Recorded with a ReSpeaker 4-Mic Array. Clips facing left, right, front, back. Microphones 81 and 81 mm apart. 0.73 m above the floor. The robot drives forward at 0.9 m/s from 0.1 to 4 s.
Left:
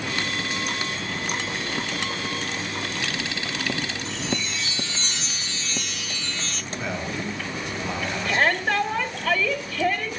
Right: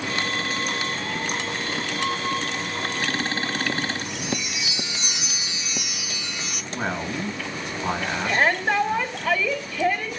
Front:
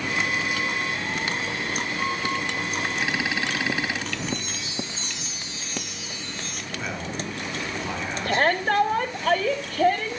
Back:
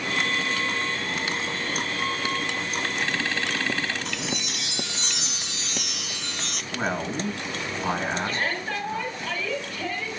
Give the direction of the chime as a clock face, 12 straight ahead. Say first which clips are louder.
Left 1 dB, front 1 dB; 6 o'clock.